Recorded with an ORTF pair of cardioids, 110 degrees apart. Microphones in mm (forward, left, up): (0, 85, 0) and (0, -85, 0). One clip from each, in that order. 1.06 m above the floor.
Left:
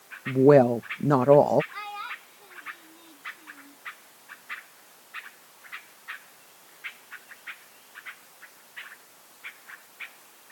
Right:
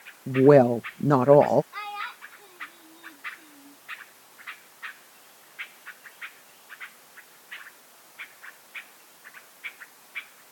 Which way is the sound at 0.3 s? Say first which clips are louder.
Right 1 dB; straight ahead.